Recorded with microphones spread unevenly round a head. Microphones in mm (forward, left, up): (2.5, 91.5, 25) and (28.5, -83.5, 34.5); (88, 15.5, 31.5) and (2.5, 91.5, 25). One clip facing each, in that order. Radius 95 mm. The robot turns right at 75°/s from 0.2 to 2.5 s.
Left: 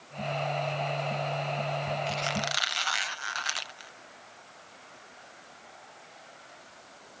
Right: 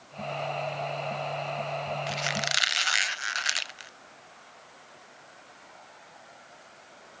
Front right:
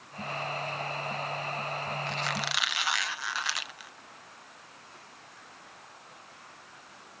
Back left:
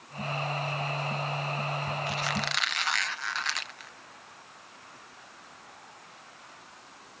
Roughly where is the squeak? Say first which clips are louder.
Left 1 dB, back left 2 dB; behind right.